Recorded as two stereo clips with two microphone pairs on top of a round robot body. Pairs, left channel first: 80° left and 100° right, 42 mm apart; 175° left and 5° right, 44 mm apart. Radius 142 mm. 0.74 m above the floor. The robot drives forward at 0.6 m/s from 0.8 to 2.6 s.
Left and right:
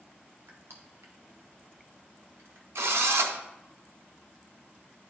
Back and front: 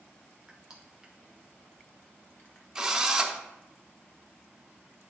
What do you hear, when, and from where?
0.5 s crushing: 80° right, 0.9 m; by 2.6 s 135° right, 1.3 m
2.8 s a drill: 85° right, 0.6 m